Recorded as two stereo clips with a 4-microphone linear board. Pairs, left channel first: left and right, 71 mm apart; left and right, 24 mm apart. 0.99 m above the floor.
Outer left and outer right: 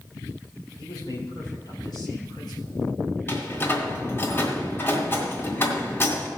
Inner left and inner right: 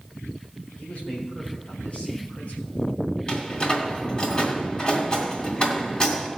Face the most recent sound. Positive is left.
turn(degrees=35)  # may be behind; listen again after turning